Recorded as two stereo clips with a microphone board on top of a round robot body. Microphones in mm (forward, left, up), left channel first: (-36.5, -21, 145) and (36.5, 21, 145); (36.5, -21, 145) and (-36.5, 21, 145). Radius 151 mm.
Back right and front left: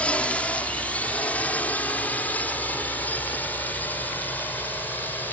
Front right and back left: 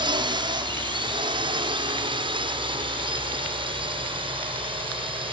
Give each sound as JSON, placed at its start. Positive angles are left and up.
{"t": 0.0, "sound": "a drone", "azimuth_deg": 135}